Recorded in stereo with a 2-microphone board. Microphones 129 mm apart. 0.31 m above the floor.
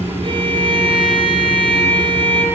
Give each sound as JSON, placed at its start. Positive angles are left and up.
{"t": 0.2, "sound": "a violin", "side_deg": -40, "distance_m": 4.5}